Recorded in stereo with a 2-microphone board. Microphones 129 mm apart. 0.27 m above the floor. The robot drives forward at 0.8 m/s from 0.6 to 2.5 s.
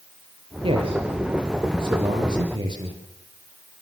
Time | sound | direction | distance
0.6 | a man speaking | 45° right (ahead or behind) | 8.5 m